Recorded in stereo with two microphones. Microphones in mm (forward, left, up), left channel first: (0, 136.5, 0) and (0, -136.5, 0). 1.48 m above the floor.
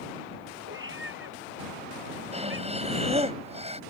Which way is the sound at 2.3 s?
25° right (ahead or behind).